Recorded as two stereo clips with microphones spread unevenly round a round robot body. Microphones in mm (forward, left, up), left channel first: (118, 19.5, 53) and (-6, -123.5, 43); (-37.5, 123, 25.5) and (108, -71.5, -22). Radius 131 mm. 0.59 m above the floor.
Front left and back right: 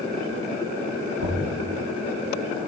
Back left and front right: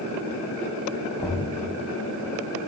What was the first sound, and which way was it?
Knocking, 155° right.